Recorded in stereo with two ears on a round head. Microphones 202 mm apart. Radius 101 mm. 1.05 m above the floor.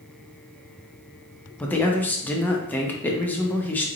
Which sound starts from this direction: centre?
A man speaking, at 1.6 s.